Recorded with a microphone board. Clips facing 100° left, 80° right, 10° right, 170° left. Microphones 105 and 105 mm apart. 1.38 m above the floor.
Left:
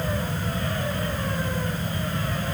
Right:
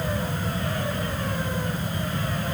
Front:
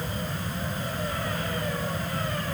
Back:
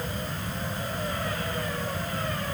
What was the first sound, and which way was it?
Only background noise.